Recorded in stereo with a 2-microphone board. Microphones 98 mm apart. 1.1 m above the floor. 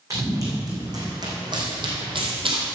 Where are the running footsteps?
35° right (ahead or behind), 4.5 m; by 2.7 s 60° right (ahead or behind), 2 m.